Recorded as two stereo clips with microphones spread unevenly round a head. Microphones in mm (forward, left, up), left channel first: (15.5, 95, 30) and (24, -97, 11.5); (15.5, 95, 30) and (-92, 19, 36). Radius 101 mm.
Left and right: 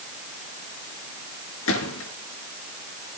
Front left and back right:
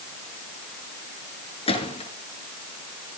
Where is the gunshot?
80° left, 6 m.